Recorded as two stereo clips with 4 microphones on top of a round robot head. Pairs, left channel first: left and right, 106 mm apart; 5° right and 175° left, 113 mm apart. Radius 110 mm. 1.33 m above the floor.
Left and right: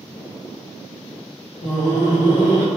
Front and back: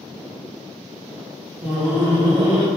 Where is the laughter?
100° left, 1.4 m; by 2.7 s 125° left, 1.7 m.